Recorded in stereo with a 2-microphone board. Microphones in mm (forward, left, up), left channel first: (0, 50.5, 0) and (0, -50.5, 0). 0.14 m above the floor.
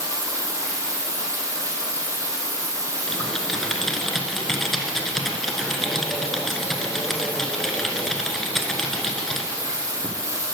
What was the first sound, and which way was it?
Running water, 30° right (ahead or behind).